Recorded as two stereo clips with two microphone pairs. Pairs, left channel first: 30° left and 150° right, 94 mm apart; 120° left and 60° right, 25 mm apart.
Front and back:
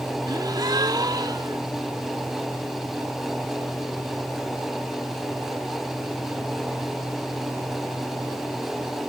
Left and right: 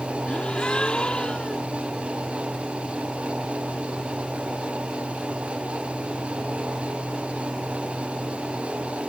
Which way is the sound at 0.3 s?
170° left.